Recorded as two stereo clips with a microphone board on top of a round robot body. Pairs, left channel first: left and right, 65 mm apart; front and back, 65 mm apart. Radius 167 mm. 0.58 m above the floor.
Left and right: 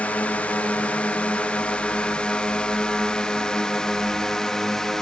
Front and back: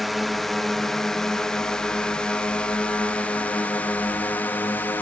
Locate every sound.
0.0 s a drone: 90° left; by 5.0 s 15° left